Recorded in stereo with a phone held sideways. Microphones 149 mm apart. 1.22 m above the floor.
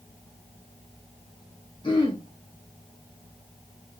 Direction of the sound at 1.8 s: 35° left (ahead or behind).